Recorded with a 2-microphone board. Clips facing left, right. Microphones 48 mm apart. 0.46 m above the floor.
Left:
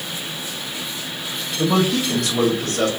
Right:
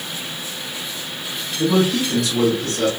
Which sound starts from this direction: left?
A man speaking, at 1.6 s.